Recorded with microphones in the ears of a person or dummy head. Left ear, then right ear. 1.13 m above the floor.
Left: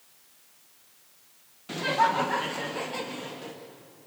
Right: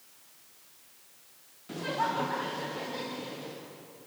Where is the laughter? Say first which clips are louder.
Left 7 dB; 50° left (ahead or behind), 0.7 m; by 3.6 s 55° left (ahead or behind), 1.8 m.